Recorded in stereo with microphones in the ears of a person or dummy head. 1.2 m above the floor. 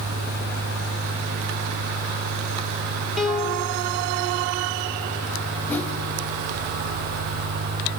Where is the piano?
Centre (ahead or behind), 0.8 m.